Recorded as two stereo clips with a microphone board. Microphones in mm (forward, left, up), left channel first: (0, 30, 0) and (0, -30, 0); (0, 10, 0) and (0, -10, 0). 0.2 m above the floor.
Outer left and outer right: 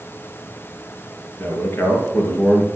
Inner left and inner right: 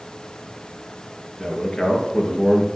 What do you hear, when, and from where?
1.4 s a man speaking: 40° left (ahead or behind), 3.5 m